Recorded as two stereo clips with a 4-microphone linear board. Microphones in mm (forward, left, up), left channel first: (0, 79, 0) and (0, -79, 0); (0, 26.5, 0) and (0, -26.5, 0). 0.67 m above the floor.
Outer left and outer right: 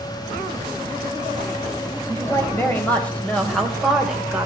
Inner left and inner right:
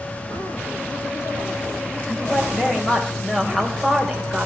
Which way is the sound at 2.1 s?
15° left (ahead or behind).